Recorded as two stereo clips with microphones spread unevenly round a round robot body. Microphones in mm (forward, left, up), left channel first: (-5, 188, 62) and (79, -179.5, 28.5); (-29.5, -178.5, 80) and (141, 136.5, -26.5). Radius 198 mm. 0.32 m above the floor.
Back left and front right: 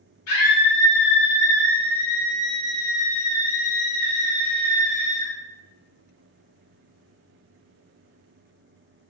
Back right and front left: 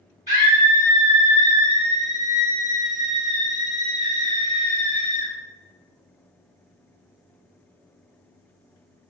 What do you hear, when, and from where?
0.3 s a scream: 160° left, 1.9 m